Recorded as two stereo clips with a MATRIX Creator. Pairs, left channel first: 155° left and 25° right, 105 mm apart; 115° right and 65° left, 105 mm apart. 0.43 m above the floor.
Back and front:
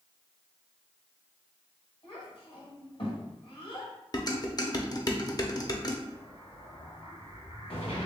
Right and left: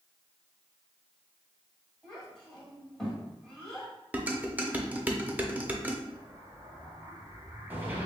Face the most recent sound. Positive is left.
turn(degrees=140)